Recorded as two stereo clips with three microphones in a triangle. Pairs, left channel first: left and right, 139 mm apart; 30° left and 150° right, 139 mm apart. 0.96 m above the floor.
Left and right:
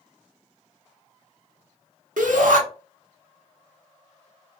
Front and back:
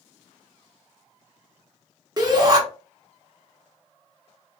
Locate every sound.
2.2 s a shout: 90° right, 1.2 m